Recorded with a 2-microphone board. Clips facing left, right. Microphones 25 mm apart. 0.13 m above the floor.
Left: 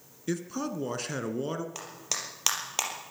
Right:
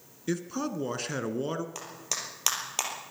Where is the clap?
10° left (ahead or behind), 3.5 m.